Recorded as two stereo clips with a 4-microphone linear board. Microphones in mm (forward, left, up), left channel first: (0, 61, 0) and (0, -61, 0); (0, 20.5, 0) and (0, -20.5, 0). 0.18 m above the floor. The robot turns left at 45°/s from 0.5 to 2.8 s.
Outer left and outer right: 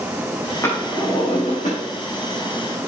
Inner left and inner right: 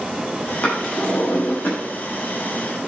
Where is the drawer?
155° left, 6 m; by 1.8 s 105° left, 6 m.